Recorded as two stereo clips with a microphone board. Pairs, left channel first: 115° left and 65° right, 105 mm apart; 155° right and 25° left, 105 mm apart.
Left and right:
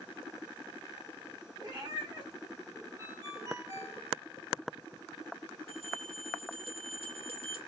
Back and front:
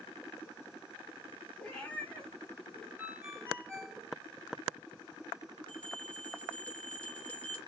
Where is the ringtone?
40° right, 1.2 m.